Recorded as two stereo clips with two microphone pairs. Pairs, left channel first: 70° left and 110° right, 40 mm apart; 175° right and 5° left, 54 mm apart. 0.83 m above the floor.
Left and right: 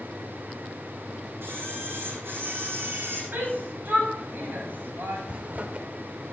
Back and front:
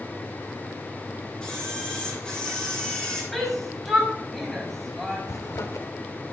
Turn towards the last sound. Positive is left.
turn(degrees=-160)